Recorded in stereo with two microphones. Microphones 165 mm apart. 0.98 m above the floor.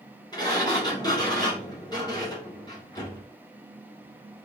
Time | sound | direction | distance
0.3 | a sliding door | 25° left (ahead or behind) | 3 m